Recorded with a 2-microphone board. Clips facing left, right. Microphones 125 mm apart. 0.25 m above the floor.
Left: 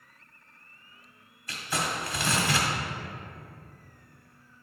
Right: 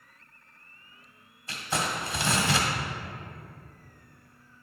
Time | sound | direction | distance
1.5 | crumpling | 25° right (ahead or behind) | 1.4 m